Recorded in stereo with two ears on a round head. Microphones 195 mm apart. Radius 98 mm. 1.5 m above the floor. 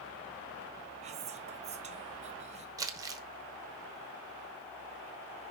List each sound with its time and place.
1.0 s whispering: 30° right (ahead or behind), 0.9 m
2.8 s crumpling: 15° right (ahead or behind), 0.9 m